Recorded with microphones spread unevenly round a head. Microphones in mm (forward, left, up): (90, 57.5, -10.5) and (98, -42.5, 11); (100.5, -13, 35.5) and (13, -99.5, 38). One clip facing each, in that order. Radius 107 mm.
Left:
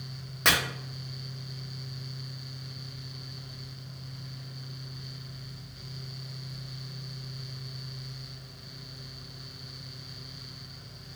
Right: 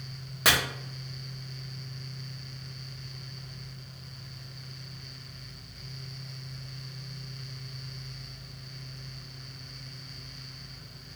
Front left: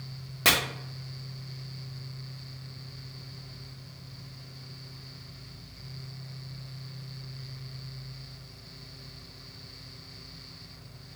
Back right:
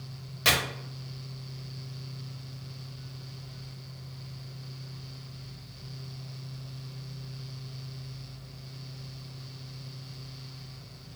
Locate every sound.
0.5 s chopping: 5° left, 0.8 m